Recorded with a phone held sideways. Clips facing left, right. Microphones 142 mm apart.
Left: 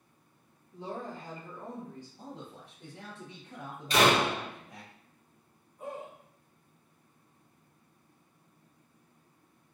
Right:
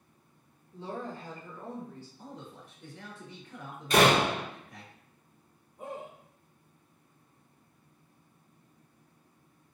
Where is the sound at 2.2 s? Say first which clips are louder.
Left 1 dB; 75° left (ahead or behind), 1.0 m.